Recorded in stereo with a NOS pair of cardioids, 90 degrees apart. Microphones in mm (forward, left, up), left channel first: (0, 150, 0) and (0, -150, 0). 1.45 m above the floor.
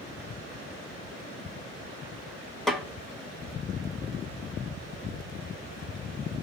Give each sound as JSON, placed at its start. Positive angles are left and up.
{"t": 2.7, "sound": "a snare drum", "azimuth_deg": 0, "distance_m": 1.6}